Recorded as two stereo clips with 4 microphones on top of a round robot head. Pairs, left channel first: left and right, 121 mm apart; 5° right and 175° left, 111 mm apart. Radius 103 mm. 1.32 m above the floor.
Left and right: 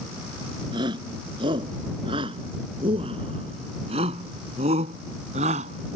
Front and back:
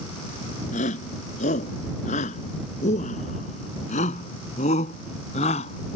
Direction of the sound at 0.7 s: 30° right.